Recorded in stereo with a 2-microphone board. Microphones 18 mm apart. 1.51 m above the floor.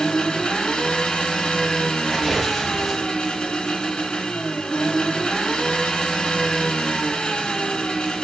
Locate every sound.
0.0 s an engine running: 70° left (ahead or behind), 0.7 m
2.0 s tearing paper: centre (ahead or behind), 1.0 m